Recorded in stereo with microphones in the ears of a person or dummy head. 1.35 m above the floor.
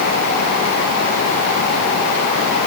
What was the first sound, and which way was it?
Only background noise.